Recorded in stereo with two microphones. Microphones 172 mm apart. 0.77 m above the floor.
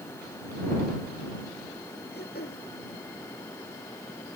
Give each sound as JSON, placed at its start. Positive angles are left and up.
{"t": 2.1, "sound": "throat clearing", "side_deg": 70}